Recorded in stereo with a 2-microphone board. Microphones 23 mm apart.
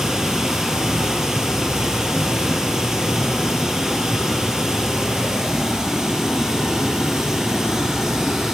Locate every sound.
0.0 s running water: 25° right (ahead or behind), 1.7 m